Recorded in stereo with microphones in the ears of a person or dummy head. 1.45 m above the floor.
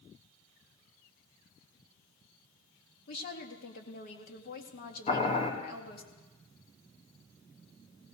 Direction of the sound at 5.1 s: 45° left (ahead or behind).